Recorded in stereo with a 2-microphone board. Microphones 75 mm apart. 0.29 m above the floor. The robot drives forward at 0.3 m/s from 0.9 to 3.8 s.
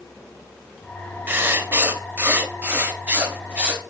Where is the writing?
25° right (ahead or behind), 0.7 m; by 3.8 s 15° right (ahead or behind), 1.0 m.